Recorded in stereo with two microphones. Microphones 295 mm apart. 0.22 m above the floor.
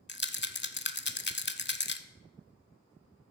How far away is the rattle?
About 0.5 m.